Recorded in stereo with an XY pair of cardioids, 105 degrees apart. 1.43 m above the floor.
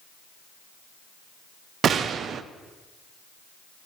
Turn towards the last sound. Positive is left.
turn(degrees=-55)